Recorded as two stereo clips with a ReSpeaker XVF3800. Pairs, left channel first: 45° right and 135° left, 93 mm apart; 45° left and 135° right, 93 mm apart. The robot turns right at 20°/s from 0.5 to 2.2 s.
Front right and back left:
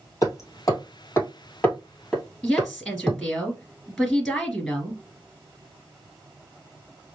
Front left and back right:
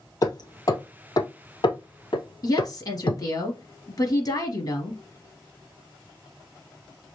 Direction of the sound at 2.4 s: 40° left.